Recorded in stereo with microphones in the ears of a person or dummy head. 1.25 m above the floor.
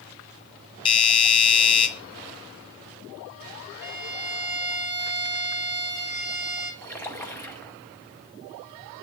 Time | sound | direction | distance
0.8 | a doorbell | 30° left (ahead or behind) | 1.5 m
3.8 | a violin | 10° right (ahead or behind) | 1.5 m
6.8 | a splash | 5° left (ahead or behind) | 0.9 m